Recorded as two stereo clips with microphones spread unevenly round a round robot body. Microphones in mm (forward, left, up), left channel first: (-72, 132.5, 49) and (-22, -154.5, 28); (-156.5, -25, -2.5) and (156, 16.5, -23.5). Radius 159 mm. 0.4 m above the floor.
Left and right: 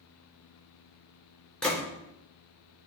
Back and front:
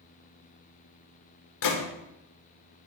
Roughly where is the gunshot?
Behind.